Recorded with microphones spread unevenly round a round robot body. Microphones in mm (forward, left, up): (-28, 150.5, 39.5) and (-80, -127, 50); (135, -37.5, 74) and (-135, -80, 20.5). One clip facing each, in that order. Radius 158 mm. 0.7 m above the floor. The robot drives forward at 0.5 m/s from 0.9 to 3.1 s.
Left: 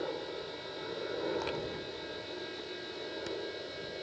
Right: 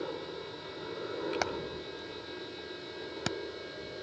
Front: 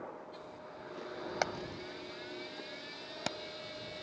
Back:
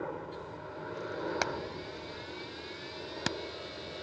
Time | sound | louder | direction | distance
0.0 | a helicopter | even, back 8 dB | 175° right | ?
1.4 | hammering | even, back 2 dB | 90° right | ?